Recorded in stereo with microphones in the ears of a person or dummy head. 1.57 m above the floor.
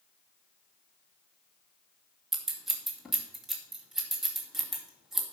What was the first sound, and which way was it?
Scissors, centre (ahead or behind).